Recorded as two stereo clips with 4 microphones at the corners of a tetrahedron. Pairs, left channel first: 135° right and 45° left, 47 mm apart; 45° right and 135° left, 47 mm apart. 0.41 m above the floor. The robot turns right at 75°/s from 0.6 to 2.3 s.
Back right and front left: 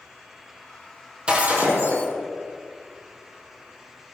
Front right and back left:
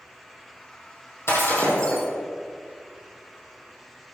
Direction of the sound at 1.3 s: 20° right.